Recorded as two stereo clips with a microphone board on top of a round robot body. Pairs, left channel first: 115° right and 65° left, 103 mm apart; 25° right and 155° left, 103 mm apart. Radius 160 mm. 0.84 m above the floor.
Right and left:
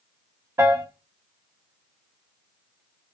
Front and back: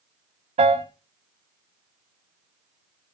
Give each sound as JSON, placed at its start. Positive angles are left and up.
{"t": 0.6, "sound": "a piano", "azimuth_deg": 135, "distance_m": 1.5}